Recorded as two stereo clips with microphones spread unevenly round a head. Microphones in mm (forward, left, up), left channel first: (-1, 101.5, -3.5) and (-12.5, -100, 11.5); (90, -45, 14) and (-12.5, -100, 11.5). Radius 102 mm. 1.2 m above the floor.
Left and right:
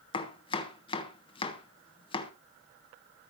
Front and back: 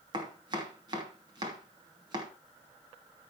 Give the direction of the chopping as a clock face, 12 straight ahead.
7 o'clock.